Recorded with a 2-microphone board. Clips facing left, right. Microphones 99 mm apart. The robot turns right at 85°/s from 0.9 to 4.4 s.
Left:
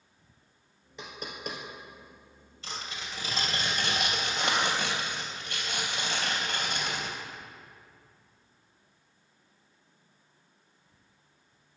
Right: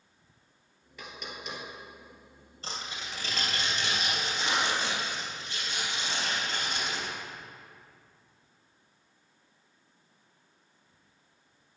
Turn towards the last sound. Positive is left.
turn(degrees=110)